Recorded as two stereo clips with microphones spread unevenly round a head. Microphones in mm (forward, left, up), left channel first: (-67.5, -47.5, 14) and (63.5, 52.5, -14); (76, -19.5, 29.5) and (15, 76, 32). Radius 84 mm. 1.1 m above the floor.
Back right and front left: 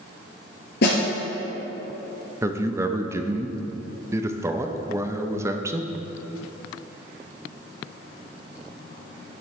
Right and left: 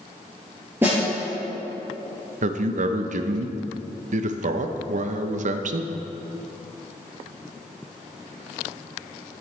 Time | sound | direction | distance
0.8 | a snare drum | 160° right | 3.5 m
2.4 | a man speaking | 110° left | 0.7 m